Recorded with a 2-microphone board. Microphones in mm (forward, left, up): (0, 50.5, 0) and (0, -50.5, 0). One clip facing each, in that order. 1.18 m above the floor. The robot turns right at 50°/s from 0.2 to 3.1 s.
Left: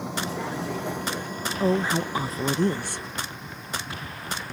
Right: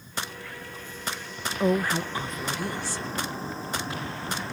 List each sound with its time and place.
0.0 s a vehicle: 80° left; by 4.5 s 30° right (ahead or behind)
1.6 s a woman speaking: 5° right; by 3.0 s 70° left